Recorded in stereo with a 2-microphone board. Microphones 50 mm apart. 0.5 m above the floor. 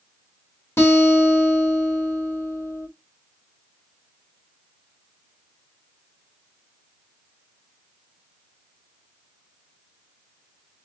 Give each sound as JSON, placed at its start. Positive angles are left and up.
{"t": 0.8, "sound": "a guitar", "side_deg": 55, "distance_m": 2.0}